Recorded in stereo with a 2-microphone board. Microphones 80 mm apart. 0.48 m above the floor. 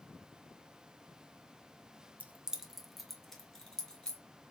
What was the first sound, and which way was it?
Keys jangling, 20° right (ahead or behind).